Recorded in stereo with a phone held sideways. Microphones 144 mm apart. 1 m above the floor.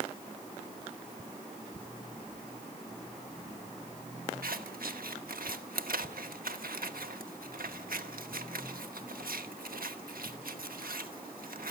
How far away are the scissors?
About 1.3 m.